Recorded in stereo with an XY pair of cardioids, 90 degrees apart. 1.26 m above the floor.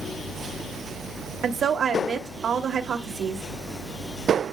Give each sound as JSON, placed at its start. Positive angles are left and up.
{"t": 1.4, "sound": "a woman speaking", "azimuth_deg": -60, "distance_m": 2.0}